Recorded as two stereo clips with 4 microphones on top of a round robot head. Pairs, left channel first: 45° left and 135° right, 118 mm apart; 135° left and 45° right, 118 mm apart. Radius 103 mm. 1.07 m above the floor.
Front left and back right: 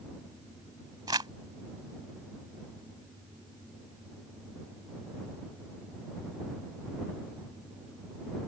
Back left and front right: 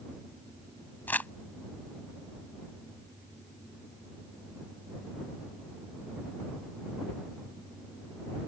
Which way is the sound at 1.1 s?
160° right.